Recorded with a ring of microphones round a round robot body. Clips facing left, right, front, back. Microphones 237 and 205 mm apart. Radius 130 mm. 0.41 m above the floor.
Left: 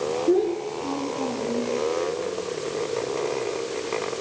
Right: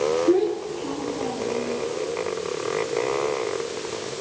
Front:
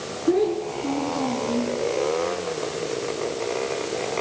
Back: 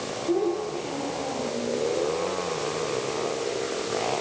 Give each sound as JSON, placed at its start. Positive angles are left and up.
{"t": 0.3, "sound": "a child speaking", "azimuth_deg": 5, "distance_m": 5.0}